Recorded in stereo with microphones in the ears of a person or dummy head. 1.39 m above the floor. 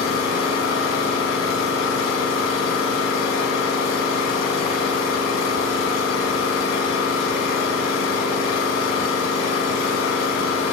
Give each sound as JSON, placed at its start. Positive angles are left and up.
{"t": 0.0, "sound": "an engine running", "side_deg": 75, "distance_m": 7.5}